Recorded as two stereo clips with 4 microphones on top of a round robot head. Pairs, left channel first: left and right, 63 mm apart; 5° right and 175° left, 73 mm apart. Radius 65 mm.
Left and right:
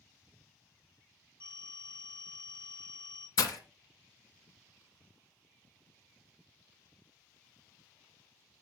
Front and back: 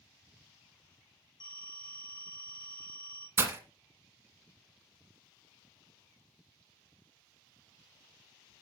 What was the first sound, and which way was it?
A phone ringing, 15° left.